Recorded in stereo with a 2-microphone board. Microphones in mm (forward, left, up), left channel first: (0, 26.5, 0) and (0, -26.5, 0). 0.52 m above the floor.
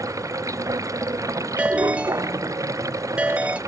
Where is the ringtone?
20° right (ahead or behind).